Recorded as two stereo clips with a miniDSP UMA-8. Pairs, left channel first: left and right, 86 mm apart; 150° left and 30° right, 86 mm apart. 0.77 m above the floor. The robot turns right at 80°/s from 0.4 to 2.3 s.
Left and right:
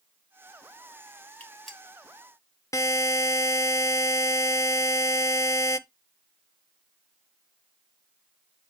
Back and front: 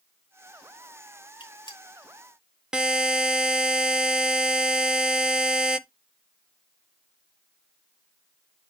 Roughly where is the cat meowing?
I don't hear a cat meowing.